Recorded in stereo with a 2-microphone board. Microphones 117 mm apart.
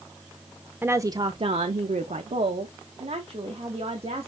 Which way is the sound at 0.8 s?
15° right (ahead or behind).